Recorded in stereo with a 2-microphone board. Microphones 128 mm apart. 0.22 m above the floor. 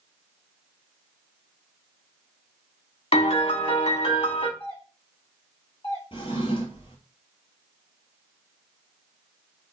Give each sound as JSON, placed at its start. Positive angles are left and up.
{"t": 3.1, "sound": "a piano", "side_deg": 50, "distance_m": 0.7}
{"t": 4.6, "sound": "a doorbell", "side_deg": 25, "distance_m": 2.5}
{"t": 6.1, "sound": "a drawer", "side_deg": 45, "distance_m": 1.1}